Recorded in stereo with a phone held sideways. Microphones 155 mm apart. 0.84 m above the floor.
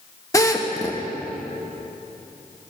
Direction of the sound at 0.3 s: 20° left (ahead or behind).